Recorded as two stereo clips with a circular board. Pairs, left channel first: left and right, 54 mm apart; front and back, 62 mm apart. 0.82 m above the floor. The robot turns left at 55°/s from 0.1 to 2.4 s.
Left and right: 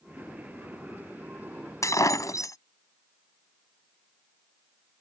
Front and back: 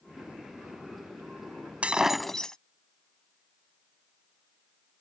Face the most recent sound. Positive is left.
turn(degrees=80)